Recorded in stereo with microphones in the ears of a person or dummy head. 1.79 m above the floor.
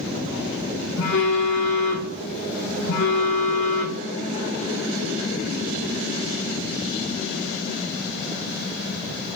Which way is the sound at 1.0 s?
50° left (ahead or behind).